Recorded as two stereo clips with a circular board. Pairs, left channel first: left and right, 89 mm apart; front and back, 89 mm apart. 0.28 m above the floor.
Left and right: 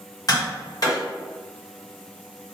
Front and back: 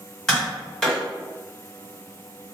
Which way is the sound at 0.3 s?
80° left.